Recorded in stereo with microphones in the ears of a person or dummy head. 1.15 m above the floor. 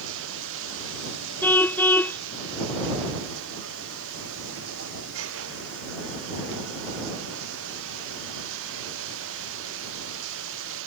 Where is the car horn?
10° left (ahead or behind).